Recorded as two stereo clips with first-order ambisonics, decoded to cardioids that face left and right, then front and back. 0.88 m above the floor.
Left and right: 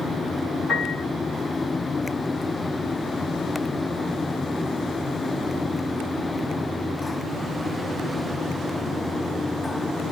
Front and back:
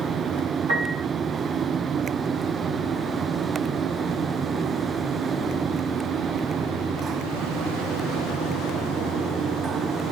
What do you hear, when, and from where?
0.7 s a piano: 170° left, 5.5 m